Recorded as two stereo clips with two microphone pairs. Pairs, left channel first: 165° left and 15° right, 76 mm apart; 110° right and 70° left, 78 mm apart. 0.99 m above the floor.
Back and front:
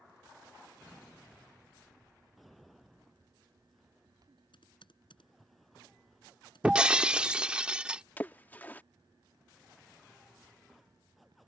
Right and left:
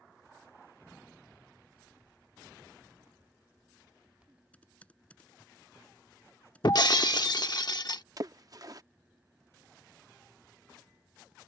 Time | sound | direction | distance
4.5 | typing on a keyboard | 175° left | ?
6.6 | breaking glass | 90° right | ?
8.2 | a splash | 100° left | ?